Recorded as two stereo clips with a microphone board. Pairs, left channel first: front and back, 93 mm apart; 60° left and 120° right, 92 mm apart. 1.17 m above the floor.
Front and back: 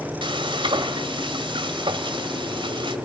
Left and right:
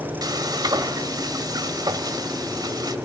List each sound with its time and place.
0.2 s frying: 165° right, 2.0 m